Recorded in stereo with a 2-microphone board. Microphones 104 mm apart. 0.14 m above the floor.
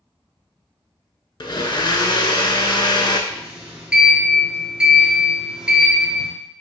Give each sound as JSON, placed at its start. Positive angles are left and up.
{"t": 1.4, "sound": "a blender", "side_deg": 50, "distance_m": 0.6}
{"t": 3.3, "sound": "a sliding door", "side_deg": -10, "distance_m": 1.5}